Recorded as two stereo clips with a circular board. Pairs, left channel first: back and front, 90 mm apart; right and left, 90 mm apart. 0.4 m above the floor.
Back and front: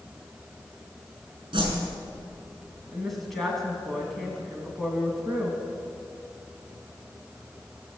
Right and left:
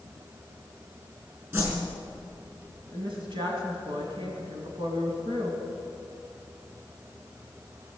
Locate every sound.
1.5 s a whoosh: 30° left, 5 m
2.9 s a woman speaking: 90° left, 2.5 m